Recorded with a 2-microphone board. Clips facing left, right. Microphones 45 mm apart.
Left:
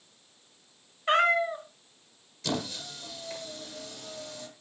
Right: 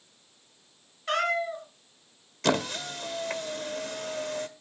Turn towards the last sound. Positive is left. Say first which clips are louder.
# right 7 dB
turn(degrees=-60)  # may be behind; listen again after turning